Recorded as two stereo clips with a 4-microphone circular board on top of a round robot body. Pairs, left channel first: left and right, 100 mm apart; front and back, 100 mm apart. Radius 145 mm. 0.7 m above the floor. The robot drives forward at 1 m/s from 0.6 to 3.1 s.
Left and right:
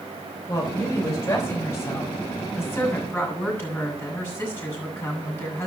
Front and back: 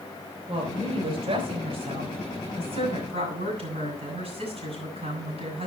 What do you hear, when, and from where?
0.5 s a woman speaking: 150° left, 5 m; by 5.7 s 160° left, 7.5 m